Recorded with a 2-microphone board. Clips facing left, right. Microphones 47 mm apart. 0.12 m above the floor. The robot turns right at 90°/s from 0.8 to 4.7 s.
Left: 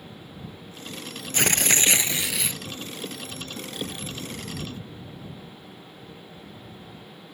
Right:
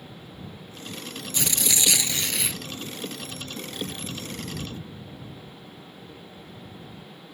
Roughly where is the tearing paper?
Left.